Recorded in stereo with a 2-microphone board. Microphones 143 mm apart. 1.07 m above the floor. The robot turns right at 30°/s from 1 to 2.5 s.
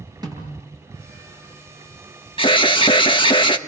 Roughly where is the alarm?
Left.